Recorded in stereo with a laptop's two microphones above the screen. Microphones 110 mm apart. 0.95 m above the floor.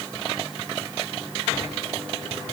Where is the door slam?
I don't hear a door slam.